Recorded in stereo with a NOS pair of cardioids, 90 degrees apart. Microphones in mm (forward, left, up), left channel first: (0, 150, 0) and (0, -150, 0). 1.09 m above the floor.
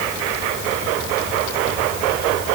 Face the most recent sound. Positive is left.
No sound to turn to.